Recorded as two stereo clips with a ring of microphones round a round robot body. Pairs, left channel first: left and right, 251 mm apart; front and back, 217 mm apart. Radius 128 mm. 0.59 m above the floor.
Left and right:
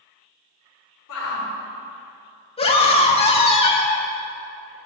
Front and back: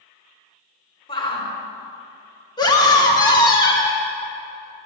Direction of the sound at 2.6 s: 50° left.